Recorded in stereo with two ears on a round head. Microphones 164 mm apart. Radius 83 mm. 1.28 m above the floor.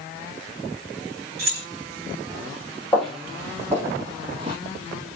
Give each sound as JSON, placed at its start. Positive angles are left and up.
{"t": 1.4, "sound": "keys jangling", "side_deg": -65, "distance_m": 2.0}
{"t": 2.9, "sound": "footsteps", "side_deg": 5, "distance_m": 1.7}